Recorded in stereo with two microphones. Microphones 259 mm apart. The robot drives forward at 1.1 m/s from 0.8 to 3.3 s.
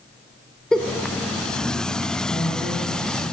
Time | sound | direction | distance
0.7 | a giggle | centre (ahead or behind) | 0.8 m
2.3 | a woman speaking | 15° left (ahead or behind) | 3.5 m